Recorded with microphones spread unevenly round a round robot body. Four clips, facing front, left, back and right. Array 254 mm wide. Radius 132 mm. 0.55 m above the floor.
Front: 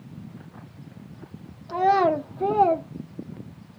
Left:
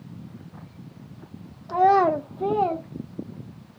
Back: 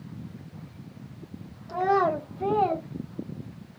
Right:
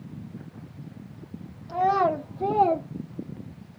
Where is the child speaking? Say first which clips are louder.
Left 4 dB, front 4 dB; 60° left, 0.9 m; by 2.9 s 30° right, 0.8 m.